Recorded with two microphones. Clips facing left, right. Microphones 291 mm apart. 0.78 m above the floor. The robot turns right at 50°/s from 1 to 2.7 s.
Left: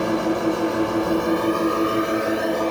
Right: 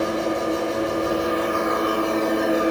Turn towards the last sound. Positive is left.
turn(degrees=-170)